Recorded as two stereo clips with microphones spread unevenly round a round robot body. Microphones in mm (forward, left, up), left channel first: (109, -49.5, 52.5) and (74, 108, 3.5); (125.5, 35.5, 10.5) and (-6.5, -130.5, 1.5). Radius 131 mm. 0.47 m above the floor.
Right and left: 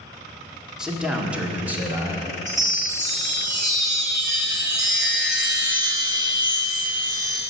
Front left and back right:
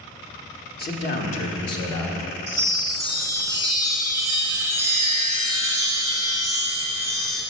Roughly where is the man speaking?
Ahead left.